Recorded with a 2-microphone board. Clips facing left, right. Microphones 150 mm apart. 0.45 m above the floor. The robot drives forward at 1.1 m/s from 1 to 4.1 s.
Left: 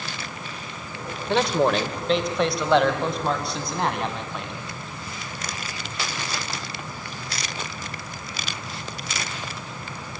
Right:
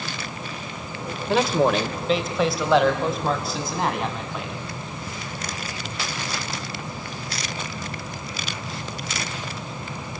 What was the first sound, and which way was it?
A man speaking, 5° right (ahead or behind).